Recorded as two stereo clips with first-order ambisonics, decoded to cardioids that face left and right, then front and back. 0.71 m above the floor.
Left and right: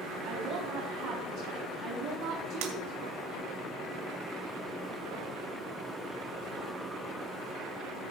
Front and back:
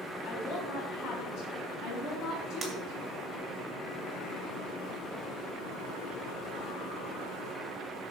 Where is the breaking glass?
105° right, 2.5 m.